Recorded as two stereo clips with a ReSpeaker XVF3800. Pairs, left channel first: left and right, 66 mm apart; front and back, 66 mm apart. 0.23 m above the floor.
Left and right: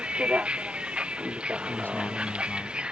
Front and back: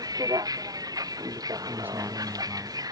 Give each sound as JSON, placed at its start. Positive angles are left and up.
{"t": 0.0, "sound": "a vehicle", "azimuth_deg": -165}
{"t": 1.7, "sound": "a man speaking", "azimuth_deg": 135}